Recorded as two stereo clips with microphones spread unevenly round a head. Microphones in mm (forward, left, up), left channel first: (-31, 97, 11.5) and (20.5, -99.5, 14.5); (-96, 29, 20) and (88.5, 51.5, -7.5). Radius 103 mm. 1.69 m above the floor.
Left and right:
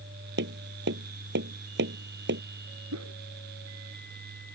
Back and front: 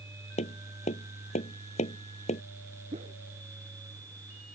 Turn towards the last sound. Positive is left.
turn(degrees=-60)